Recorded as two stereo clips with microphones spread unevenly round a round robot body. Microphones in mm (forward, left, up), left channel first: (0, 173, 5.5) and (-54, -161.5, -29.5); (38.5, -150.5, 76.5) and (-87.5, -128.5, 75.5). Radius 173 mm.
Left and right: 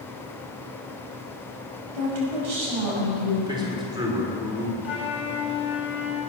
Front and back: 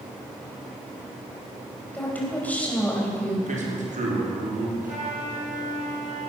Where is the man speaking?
175° right, 3.5 m.